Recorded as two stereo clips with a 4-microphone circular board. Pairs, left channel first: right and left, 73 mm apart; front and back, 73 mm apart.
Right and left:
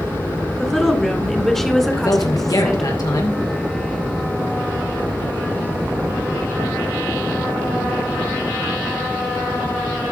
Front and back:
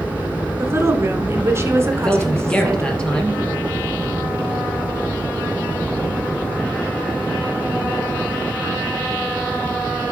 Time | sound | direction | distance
0.6 | a woman speaking | 175° right | 1.5 m
1.9 | a man speaking | 75° right | 3 m